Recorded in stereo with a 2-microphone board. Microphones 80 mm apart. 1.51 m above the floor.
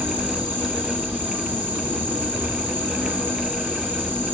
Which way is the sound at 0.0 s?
25° right (ahead or behind).